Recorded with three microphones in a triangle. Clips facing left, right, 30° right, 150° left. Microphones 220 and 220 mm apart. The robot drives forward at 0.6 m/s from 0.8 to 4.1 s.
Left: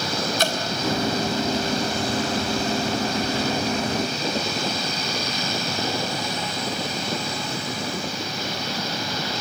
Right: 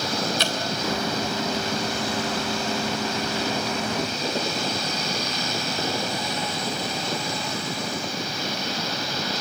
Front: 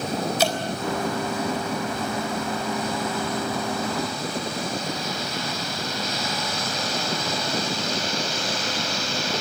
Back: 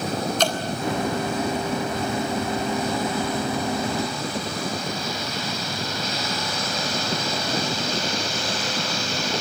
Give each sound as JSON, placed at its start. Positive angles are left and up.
{"t": 0.4, "sound": "dripping", "azimuth_deg": 50, "distance_m": 3.0}